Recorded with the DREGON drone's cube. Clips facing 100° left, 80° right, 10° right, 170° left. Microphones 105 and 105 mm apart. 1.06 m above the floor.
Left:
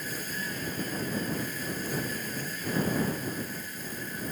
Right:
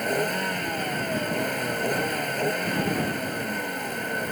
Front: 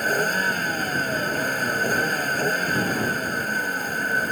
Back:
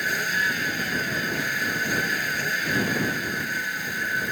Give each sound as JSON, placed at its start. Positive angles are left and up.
{"t": 0.0, "sound": "a vehicle", "azimuth_deg": -55}